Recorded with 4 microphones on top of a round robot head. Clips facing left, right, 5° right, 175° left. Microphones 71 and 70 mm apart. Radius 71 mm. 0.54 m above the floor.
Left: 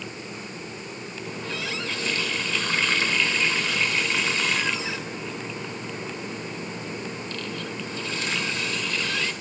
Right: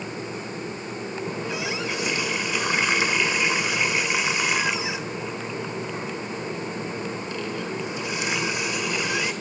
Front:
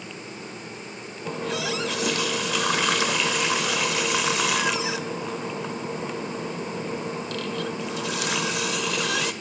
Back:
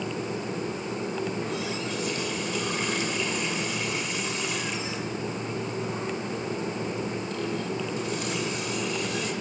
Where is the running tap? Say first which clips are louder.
Right 2 dB, front 2 dB; 15° right, 1.5 m.